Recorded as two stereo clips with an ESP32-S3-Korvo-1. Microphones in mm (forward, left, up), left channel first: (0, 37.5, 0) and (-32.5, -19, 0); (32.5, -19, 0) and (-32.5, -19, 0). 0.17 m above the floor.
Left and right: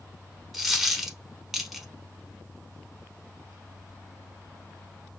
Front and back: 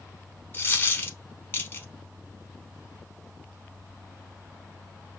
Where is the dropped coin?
35° right, 0.6 m.